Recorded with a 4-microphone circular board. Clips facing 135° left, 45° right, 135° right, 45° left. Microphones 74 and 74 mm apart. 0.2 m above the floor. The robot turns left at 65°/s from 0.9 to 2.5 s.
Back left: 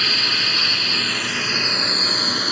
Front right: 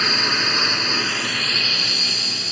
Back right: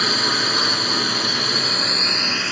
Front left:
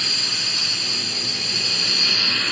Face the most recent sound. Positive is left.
turn(degrees=145)